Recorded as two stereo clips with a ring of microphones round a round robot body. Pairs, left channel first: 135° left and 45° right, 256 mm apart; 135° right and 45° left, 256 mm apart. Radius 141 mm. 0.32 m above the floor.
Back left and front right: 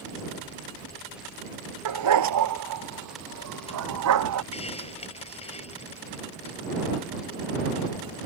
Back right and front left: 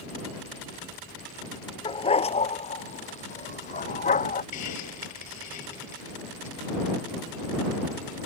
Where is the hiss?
155° right.